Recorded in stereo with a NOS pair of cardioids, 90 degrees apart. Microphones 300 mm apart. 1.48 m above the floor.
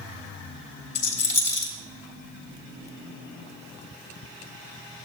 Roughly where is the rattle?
Ahead left.